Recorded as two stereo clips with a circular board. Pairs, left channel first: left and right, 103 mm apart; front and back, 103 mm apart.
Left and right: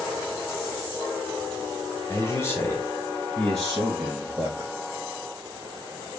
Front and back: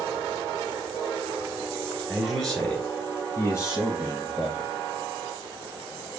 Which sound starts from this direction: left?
A man speaking, at 2.1 s.